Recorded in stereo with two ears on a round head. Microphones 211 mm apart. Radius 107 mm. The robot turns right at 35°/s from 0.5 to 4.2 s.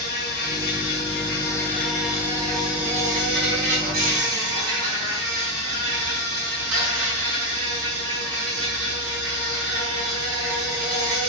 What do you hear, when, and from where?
0.0 s an insect: 130° left, 4 m; by 11.3 s 100° right, 4 m